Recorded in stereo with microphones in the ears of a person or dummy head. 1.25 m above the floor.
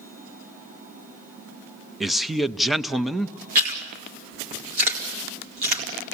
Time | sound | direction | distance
2.0 | a man speaking | centre (ahead or behind) | 0.5 m
3.5 | chewing | 40° right (ahead or behind) | 2.5 m